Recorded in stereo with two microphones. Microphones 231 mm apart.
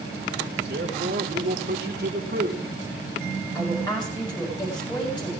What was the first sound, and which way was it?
A man speaking, 45° right (ahead or behind).